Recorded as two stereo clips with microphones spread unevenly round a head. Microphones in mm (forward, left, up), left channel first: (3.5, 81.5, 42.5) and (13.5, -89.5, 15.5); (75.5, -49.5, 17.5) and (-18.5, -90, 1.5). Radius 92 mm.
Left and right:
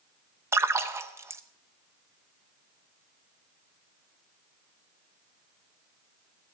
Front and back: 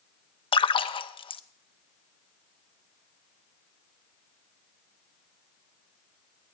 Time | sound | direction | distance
0.5 | a splash | 15° right | 0.8 m